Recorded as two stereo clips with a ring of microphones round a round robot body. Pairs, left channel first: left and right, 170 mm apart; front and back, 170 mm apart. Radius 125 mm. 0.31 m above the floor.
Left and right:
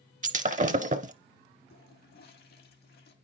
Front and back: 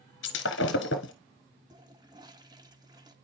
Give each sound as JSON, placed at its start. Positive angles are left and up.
{"t": 0.2, "sound": "breaking glass", "azimuth_deg": -40, "distance_m": 0.8}
{"t": 1.7, "sound": "a toilet flushing", "azimuth_deg": 115, "distance_m": 1.4}